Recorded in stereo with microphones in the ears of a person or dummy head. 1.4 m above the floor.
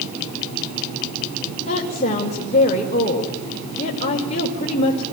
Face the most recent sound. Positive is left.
turn(degrees=45)  # may be behind; listen again after turning